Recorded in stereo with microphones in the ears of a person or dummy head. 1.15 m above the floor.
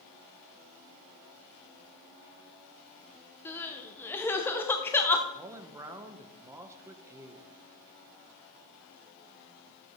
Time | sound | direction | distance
3.5 | crying | 10° left (ahead or behind) | 0.8 m
5.3 | a man speaking | 15° right (ahead or behind) | 0.8 m